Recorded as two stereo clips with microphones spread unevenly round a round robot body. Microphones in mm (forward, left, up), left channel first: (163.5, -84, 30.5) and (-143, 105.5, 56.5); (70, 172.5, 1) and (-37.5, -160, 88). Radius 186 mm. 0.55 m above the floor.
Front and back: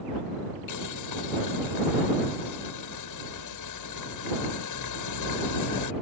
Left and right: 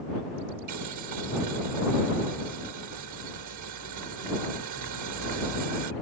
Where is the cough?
I don't hear a cough.